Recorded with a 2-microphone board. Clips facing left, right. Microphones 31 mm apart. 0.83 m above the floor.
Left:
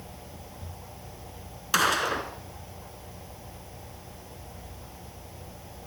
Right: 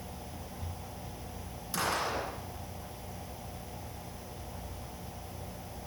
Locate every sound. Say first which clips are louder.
1.7 s a gunshot: left 8 dB; 80° left, 2.5 m